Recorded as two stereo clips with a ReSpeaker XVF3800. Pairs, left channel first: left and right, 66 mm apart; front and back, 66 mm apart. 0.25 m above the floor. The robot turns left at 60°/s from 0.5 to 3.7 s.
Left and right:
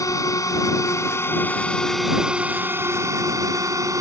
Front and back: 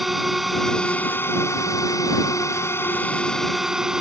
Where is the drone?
90° left; by 4.0 s 100° right.